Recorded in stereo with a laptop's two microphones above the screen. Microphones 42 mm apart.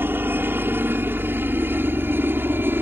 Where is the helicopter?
60° right (ahead or behind).